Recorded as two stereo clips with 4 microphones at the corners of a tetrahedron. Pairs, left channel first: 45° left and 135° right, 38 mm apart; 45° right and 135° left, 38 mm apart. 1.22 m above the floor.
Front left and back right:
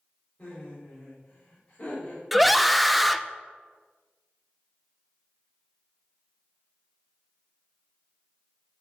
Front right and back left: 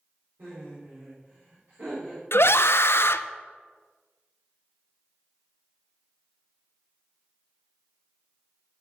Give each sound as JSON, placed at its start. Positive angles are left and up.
{"t": 0.4, "sound": "laughter", "azimuth_deg": 120, "distance_m": 4.5}
{"t": 2.3, "sound": "a scream", "azimuth_deg": -45, "distance_m": 0.5}